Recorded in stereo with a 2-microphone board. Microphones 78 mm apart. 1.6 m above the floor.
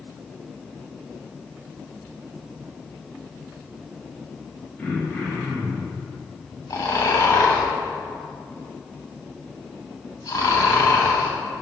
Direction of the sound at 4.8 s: 15° left (ahead or behind).